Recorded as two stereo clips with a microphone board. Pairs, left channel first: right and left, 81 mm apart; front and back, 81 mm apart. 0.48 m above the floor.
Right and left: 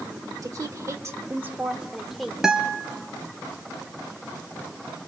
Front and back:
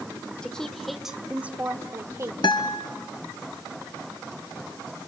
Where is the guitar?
10° left, 1.4 m.